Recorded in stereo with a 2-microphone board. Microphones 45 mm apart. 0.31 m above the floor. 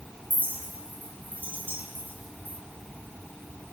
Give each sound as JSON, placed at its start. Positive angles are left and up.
{"t": 0.3, "sound": "a clink", "side_deg": -50, "distance_m": 5.5}